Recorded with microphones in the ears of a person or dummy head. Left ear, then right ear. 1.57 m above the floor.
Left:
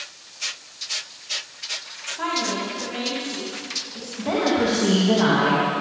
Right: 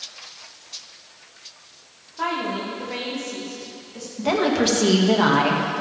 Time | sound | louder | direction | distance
2.2 | a woman speaking | even | 5° right (ahead or behind) | 3 m
4.2 | a woman speaking | right 1 dB | 80° right | 2.5 m